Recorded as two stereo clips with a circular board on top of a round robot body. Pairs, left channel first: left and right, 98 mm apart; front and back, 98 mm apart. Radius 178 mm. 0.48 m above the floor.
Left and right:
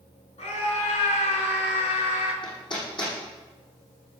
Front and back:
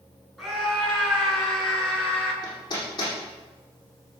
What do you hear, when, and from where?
0.4 s a scream: 90° left, 7 m; by 2.3 s 80° left, 7 m
2.4 s hammering: 50° left, 7.5 m